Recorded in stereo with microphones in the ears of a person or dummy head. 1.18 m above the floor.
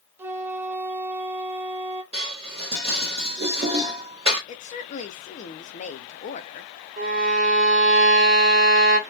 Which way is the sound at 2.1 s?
35° right (ahead or behind).